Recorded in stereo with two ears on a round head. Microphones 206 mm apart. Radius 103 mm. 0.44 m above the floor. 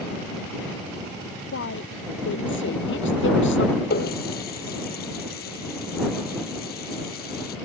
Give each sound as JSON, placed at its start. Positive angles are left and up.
{"t": 1.5, "sound": "a woman speaking", "side_deg": 55}
{"t": 3.9, "sound": "a running tap", "side_deg": 45}